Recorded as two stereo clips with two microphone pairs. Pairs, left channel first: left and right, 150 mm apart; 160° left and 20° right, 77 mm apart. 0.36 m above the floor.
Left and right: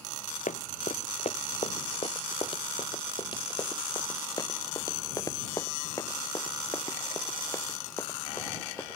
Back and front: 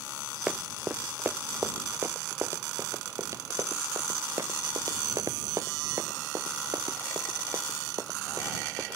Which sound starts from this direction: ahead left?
Running footsteps, at 0.5 s.